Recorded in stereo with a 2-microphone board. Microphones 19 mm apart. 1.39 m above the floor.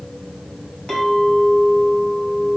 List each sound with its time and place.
0.9 s a clink: 65° left (ahead or behind), 1.2 m